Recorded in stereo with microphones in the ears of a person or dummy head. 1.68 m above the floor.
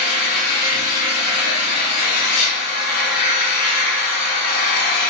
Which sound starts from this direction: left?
An engine running, at 0.0 s.